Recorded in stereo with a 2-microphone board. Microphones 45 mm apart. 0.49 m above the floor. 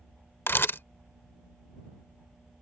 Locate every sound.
0.5 s a camera shutter: 60° left (ahead or behind)